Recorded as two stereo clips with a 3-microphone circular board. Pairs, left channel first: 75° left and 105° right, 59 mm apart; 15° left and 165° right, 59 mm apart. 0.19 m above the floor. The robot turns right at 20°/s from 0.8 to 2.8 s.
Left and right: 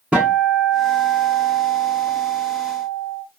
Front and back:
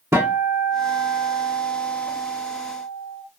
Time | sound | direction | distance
0.1 | a guitar | 165° right | 1.1 m